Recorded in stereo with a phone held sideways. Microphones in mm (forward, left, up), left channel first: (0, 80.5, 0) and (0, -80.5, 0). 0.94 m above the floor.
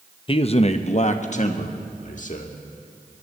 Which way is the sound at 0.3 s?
35° left (ahead or behind).